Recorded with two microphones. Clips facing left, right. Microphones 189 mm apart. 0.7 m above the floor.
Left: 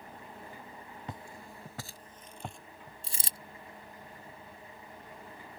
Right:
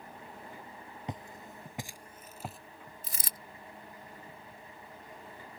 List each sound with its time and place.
1.1 s footsteps: 20° right (ahead or behind); by 2.6 s 5° right (ahead or behind)
3.0 s a dropped coin: 30° left (ahead or behind)